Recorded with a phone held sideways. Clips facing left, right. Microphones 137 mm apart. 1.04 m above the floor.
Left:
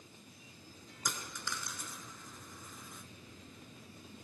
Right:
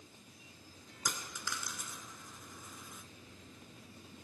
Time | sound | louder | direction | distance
1.1 | a dropped coin | even | 5° right (ahead or behind) | 1.2 m